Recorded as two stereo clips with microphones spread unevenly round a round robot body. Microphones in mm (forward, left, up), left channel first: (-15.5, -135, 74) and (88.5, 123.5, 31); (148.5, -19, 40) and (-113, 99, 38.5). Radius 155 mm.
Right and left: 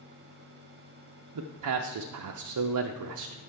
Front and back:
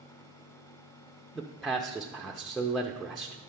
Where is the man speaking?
65° left, 0.6 m.